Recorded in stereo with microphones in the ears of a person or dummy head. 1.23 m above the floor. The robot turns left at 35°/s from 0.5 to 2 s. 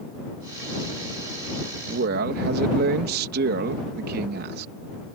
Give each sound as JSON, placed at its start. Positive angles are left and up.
{"t": 1.9, "sound": "a man speaking", "side_deg": -60}